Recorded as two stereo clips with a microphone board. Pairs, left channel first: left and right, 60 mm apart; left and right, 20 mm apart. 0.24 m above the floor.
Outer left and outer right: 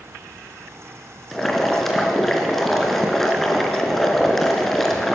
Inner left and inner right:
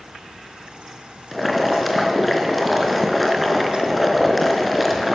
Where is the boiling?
5° left (ahead or behind), 4 m.